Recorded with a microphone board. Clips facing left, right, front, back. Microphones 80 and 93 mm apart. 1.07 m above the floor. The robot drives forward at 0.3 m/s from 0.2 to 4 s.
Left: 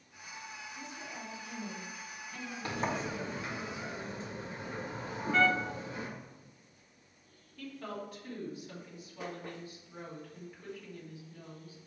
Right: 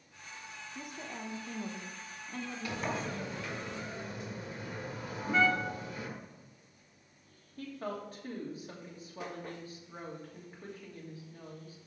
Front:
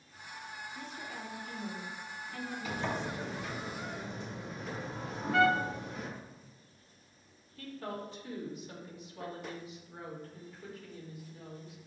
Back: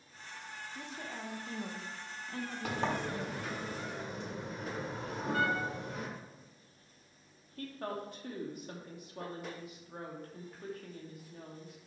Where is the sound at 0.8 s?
110° right, 1.1 m; by 3.6 s 145° right, 1.6 m.